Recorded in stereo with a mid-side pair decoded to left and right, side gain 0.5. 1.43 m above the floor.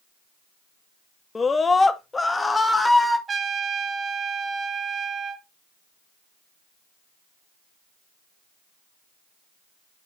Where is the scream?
35° left, 1.6 m; by 3.2 s 10° left, 2.5 m.